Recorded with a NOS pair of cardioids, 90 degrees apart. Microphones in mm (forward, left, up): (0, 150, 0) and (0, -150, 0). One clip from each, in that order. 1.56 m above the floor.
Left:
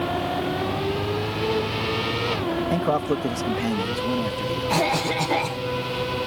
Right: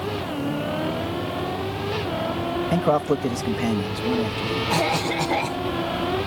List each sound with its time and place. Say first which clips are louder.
2.7 s a man speaking: right 4 dB; 15° right; by 4.8 s straight ahead
4.7 s a cough: left 1 dB; 5° left